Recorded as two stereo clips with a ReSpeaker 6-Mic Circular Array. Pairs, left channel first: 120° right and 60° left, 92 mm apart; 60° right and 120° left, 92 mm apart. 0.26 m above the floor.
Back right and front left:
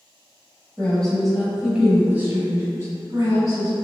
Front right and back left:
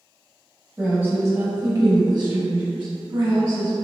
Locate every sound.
0.8 s a woman speaking: straight behind, 1.2 m; by 3.7 s 105° left, 2.5 m